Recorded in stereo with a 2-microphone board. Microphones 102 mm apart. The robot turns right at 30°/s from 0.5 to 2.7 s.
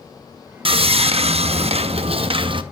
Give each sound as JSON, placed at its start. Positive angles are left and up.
{"t": 0.7, "sound": "sawing", "azimuth_deg": -115, "distance_m": 0.6}